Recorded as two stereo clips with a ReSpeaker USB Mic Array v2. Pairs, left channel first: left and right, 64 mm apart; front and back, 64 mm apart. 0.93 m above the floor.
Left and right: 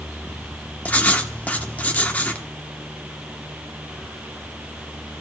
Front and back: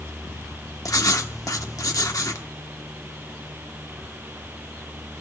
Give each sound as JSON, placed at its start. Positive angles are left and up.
{"t": 0.8, "sound": "writing", "azimuth_deg": 25, "distance_m": 1.0}